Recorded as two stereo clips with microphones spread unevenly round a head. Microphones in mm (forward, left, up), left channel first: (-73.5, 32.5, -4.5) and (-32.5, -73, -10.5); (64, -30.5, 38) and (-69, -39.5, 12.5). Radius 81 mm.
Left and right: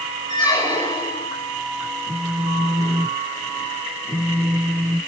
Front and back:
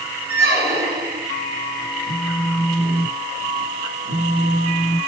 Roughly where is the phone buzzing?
Behind.